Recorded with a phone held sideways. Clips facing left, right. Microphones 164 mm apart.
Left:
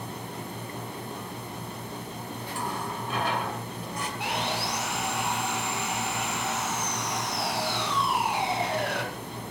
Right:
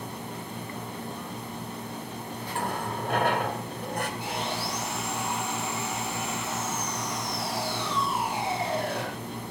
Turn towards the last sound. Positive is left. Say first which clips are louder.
# left 1 dB
turn(degrees=70)  # may be behind; listen again after turning